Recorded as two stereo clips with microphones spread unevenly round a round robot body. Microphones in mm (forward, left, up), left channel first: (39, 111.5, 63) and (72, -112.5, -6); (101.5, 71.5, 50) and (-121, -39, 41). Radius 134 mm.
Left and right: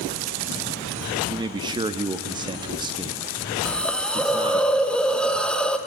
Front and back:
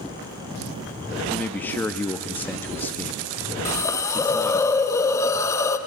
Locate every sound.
1.3 s a man speaking: 55° right, 0.6 m
3.6 s a hiss: 35° right, 0.8 m